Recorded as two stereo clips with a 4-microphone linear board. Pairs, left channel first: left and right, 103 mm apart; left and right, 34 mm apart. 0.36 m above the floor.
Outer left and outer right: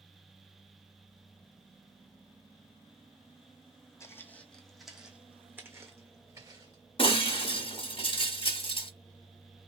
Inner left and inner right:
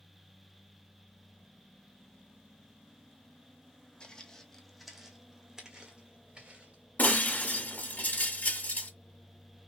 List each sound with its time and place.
4.0 s footsteps: 25° left (ahead or behind), 0.9 m; by 6.8 s 35° right (ahead or behind), 1.9 m
7.0 s breaking glass: 60° left (ahead or behind), 1.3 m